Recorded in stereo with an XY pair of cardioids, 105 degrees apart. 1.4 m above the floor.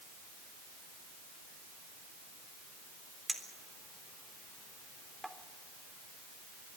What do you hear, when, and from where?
3.3 s a clink: 10° right, 3.5 m